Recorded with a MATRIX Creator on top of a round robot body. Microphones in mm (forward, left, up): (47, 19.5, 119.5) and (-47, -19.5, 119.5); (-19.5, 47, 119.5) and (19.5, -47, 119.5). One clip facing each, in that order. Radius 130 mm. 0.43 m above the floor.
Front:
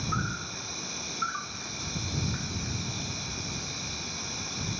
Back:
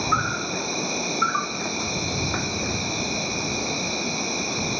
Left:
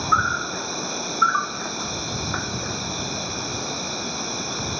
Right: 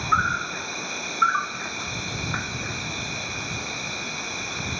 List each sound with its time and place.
0.0 s an insect: straight behind